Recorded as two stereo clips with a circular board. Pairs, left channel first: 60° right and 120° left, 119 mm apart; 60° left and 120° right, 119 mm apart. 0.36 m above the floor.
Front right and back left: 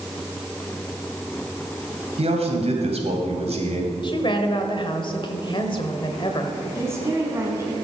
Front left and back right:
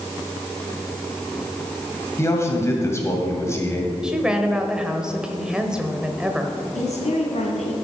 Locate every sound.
2.2 s a man speaking: 125° left, 2 m
4.0 s a woman speaking: 40° right, 1.2 m
6.8 s a woman speaking: 55° left, 2.5 m